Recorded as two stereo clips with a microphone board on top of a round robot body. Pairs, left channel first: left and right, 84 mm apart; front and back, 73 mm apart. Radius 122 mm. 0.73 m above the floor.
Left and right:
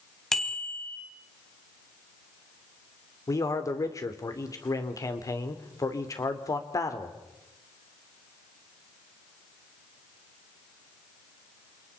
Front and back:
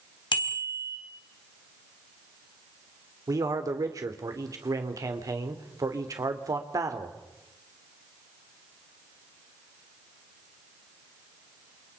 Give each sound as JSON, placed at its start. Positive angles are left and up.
{"t": 0.3, "sound": "a bicycle bell", "azimuth_deg": 5, "distance_m": 4.0}
{"t": 3.3, "sound": "a man speaking", "azimuth_deg": 140, "distance_m": 3.0}